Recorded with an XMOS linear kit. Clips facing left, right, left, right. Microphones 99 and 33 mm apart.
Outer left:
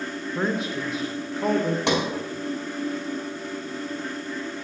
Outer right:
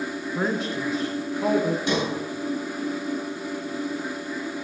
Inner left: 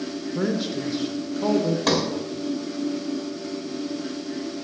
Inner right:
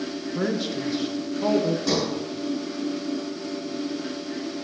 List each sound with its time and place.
0.3 s a man speaking: centre (ahead or behind), 0.7 m
1.9 s a sliding door: 80° left, 1.5 m